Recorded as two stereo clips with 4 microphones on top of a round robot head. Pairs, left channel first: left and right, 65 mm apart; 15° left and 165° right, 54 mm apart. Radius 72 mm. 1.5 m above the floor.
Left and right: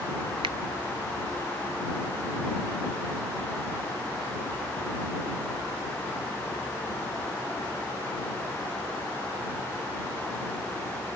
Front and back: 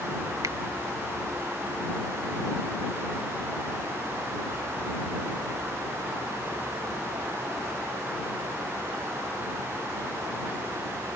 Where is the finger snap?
115° right.